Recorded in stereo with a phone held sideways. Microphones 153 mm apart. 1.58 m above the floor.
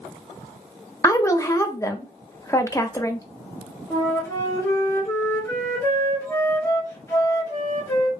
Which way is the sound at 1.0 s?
20° left (ahead or behind).